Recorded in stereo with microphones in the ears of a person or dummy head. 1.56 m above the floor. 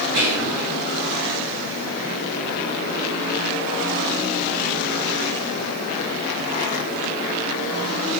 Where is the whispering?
65° right (ahead or behind), 1.0 m.